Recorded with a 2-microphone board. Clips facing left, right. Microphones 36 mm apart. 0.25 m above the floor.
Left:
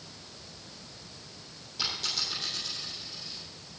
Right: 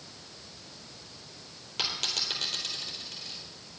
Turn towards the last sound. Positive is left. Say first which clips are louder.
# right 1 dB
turn(degrees=-75)  # may be behind; listen again after turning